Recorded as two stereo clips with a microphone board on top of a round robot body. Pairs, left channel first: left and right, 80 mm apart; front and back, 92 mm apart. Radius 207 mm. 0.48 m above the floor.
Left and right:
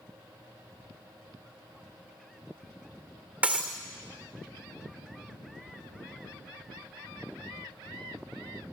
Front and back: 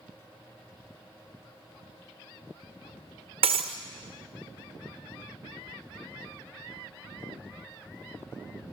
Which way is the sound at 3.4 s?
165° right.